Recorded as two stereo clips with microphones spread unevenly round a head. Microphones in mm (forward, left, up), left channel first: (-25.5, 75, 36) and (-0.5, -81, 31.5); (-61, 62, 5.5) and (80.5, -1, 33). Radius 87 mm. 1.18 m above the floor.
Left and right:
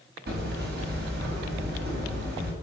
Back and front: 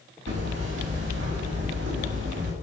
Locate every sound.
0.3 s hammering: 50° right, 5 m